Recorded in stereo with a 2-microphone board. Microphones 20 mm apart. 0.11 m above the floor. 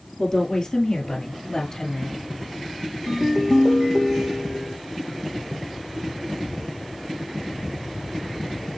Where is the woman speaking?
30° left (ahead or behind), 2 m; by 2.1 s 35° left (ahead or behind), 1.5 m.